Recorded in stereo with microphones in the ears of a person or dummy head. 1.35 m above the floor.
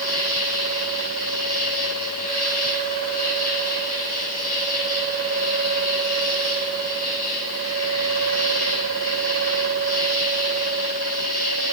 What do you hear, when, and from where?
0.0 s an insect: 50° left (ahead or behind), 7 m